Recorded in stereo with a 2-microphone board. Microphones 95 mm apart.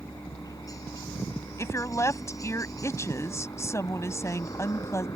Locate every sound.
0.0 s a helicopter: 35° left (ahead or behind)
1.6 s a woman speaking: 30° left (ahead or behind)